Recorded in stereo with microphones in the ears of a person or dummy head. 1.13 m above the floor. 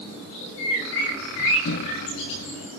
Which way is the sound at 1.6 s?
65° left (ahead or behind).